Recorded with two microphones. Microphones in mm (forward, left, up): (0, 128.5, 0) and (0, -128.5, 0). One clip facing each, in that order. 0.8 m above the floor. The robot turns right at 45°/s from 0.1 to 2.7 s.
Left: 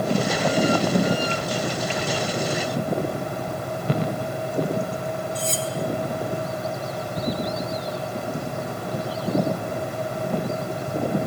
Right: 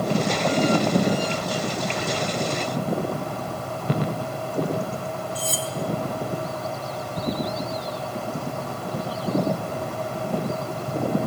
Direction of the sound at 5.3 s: 5° right (ahead or behind).